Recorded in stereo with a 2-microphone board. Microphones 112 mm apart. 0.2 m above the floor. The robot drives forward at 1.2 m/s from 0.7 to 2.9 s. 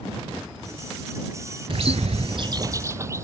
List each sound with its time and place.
1.7 s a bird: 55° right (ahead or behind); by 3.2 s 25° right (ahead or behind)